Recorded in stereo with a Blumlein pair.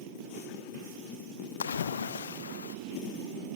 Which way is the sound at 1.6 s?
70° left.